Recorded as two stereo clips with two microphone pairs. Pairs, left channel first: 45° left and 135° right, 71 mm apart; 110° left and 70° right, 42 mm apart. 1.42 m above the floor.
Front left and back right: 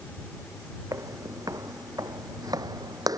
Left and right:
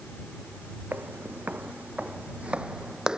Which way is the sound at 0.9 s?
105° right.